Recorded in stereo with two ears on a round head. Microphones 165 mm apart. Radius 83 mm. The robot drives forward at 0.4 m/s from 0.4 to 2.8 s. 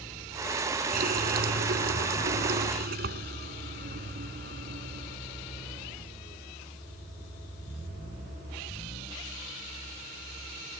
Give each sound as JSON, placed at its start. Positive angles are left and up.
{"t": 0.9, "sound": "a running tap", "side_deg": -50}